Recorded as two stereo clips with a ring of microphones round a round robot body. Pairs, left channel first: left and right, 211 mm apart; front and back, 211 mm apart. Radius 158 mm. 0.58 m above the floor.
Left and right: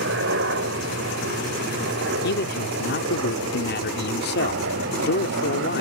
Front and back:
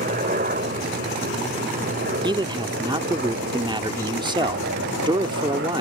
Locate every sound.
0.0 s a helicopter: 120° right; by 5.8 s 135° right
2.2 s a man speaking: 115° left